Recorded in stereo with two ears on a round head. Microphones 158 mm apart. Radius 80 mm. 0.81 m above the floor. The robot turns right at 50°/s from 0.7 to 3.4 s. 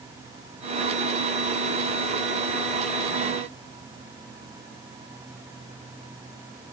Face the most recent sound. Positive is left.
No sound to turn to.